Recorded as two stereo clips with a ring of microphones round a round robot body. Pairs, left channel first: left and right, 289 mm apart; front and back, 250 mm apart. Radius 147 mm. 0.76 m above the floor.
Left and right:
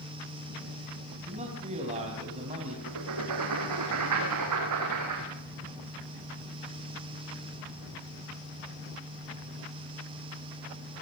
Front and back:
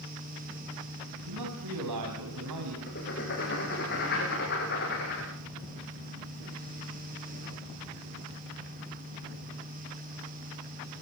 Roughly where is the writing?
Ahead right.